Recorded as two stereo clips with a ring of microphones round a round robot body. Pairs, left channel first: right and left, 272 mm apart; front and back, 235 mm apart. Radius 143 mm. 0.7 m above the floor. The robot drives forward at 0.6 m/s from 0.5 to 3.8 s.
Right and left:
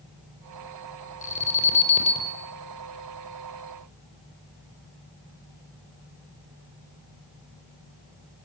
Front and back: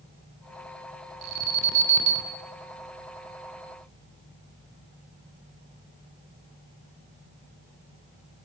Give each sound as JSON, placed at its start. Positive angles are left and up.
{"t": 1.2, "sound": "an alarm", "azimuth_deg": -155, "distance_m": 4.0}